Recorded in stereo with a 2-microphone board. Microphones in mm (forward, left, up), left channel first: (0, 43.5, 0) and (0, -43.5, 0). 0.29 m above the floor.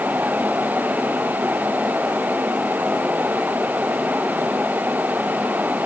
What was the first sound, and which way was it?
Only background noise.